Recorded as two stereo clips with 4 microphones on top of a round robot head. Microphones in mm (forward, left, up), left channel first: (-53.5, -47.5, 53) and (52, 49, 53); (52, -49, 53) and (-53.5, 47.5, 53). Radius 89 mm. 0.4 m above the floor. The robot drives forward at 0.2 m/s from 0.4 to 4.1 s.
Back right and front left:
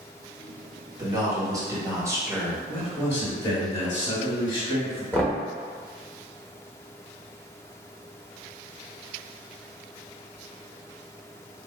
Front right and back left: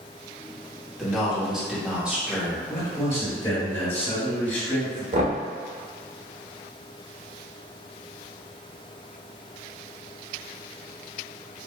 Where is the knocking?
145° left, 1.0 m.